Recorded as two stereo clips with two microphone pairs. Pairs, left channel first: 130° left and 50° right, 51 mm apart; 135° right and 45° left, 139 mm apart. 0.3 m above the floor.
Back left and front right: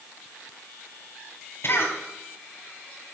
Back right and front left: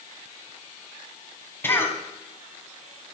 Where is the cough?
155° left, 2.5 m.